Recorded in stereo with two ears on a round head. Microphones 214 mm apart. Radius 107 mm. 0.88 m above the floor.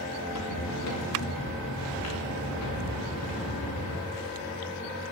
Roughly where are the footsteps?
Left.